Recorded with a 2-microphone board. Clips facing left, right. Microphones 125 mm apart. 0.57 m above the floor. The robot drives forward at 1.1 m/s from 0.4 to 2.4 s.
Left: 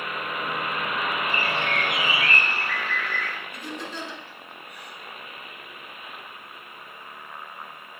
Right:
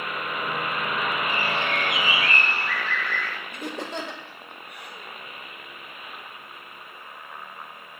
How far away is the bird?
About 1.4 m.